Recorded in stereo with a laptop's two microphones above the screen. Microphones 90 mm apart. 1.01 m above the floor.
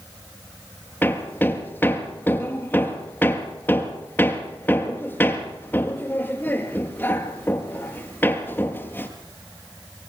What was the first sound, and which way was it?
Hammering, 20° left (ahead or behind).